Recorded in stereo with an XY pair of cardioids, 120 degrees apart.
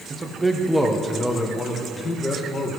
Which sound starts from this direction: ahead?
A man speaking, at 0.1 s.